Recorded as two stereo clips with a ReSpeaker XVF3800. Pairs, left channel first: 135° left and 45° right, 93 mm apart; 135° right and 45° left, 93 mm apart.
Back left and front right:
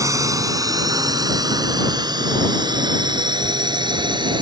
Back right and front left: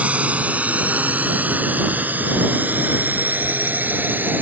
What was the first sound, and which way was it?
A drone, 20° right.